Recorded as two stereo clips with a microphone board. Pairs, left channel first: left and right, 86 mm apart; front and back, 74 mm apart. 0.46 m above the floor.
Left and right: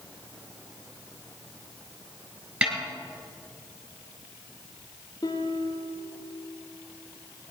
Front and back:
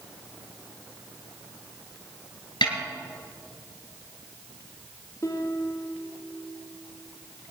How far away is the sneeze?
No sneeze in this recording.